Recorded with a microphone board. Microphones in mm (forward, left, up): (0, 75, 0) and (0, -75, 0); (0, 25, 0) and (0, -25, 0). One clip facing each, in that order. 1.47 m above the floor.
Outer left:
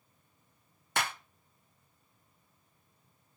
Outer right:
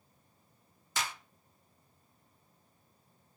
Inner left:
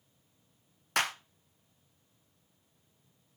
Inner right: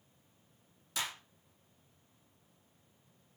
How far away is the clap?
About 0.6 m.